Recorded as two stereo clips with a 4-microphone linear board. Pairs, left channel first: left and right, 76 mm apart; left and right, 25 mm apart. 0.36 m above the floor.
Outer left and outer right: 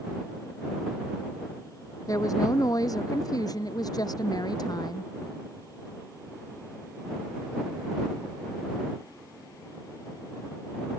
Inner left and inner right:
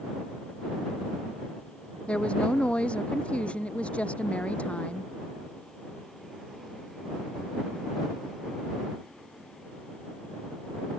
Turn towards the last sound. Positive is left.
turn(degrees=60)  # may be behind; listen again after turning